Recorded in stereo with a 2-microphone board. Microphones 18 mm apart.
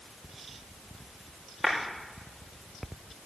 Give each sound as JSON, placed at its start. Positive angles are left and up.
{"t": 1.6, "sound": "a clap", "side_deg": -5, "distance_m": 6.0}